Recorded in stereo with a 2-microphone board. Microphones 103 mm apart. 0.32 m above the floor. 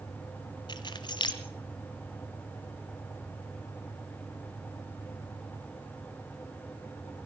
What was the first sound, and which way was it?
Keys jangling, 45° left (ahead or behind).